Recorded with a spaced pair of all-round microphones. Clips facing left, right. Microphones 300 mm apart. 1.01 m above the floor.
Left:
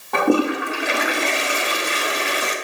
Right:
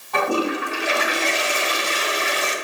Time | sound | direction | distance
0.1 | a toilet flushing | 65° left (ahead or behind) | 0.9 m